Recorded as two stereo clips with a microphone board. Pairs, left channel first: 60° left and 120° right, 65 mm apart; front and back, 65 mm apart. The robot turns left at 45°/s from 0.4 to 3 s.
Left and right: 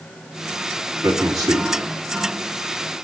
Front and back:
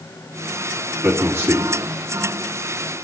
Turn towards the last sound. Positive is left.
turn(degrees=160)